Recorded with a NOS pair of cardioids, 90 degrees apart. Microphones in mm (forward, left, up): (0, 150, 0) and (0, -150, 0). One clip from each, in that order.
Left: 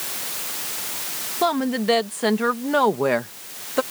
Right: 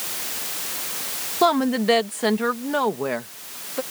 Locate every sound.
1.4 s a woman speaking: 20° right; by 3.8 s 50° left